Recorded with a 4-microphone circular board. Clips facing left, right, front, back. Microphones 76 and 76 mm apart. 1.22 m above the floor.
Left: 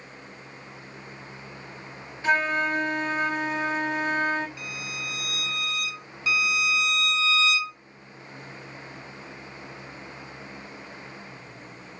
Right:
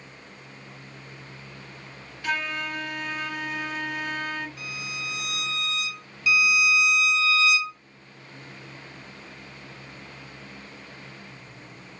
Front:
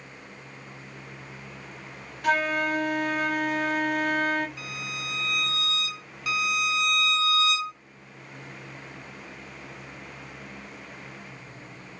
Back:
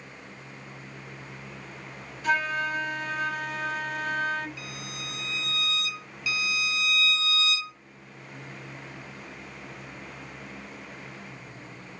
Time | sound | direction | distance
2.2 | a flute | 25° left | 0.9 m
4.6 | a violin | 40° right | 1.8 m
6.3 | a violin | 40° left | 0.6 m